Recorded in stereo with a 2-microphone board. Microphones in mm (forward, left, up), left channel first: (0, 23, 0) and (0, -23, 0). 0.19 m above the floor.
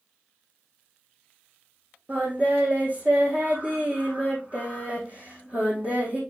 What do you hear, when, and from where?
2.1 s singing: 35° right (ahead or behind), 3.5 m